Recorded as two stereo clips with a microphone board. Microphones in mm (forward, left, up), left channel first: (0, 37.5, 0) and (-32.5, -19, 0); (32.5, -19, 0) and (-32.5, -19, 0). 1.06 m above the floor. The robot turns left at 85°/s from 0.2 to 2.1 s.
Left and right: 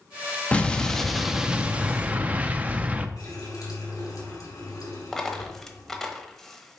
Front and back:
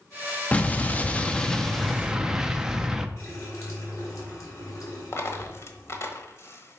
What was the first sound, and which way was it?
An explosion, 25° left.